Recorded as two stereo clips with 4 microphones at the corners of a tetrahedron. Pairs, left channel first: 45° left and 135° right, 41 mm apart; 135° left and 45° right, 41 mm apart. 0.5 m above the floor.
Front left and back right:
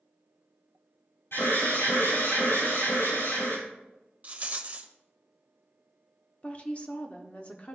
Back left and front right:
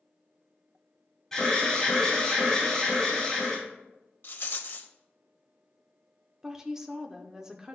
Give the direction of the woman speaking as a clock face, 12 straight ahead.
11 o'clock.